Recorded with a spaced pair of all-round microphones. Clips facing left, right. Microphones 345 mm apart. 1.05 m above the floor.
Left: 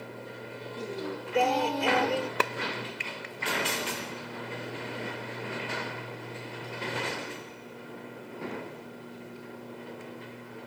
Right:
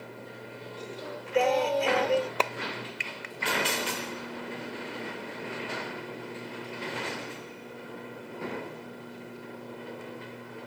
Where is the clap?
25° left (ahead or behind).